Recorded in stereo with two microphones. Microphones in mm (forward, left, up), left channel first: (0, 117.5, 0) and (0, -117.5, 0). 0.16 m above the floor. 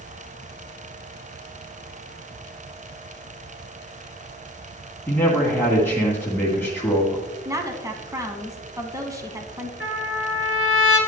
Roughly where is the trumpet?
Left.